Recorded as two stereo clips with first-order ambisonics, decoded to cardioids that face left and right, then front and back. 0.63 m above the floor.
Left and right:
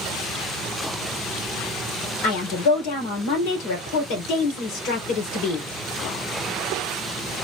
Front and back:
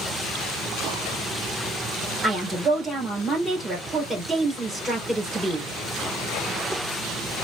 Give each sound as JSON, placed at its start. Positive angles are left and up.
{"t": 2.2, "sound": "a woman speaking", "azimuth_deg": 100, "distance_m": 2.5}